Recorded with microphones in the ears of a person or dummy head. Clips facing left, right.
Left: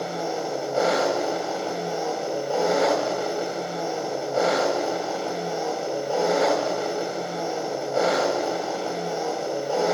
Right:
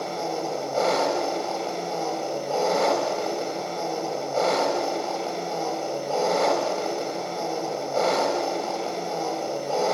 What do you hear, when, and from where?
0.0 s an engine running: 15° left (ahead or behind), 1.8 m